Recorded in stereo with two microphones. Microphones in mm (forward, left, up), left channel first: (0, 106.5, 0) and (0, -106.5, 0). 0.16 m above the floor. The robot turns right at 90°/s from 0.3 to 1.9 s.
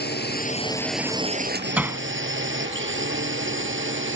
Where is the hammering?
5° right (ahead or behind); by 2.0 s 10° right (ahead or behind).